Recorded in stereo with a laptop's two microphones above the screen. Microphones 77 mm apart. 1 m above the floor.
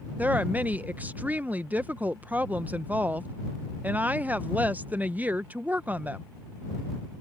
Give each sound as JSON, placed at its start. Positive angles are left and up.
{"t": 0.2, "sound": "a woman speaking", "side_deg": -20}